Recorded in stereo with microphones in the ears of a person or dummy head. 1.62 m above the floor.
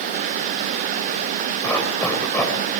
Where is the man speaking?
No man speaking in this recording.